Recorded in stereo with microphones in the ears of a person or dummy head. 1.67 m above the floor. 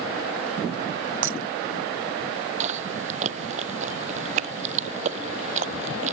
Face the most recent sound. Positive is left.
turn(degrees=-40)  # may be behind; listen again after turning